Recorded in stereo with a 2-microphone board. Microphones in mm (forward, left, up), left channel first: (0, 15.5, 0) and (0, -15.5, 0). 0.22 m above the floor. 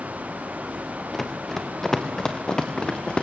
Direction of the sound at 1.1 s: 5° left (ahead or behind).